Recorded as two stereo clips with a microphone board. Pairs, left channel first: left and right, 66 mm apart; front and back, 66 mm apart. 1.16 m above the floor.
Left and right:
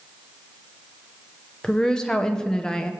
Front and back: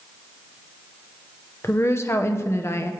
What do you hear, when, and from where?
1.6 s a woman speaking: 15° left, 0.8 m